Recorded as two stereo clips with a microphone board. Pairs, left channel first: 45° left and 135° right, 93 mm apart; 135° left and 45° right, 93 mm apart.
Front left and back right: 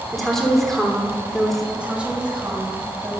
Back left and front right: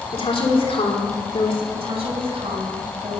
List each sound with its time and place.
0.1 s a woman speaking: 135° left, 3 m
1.7 s a woman speaking: 55° right, 4.5 m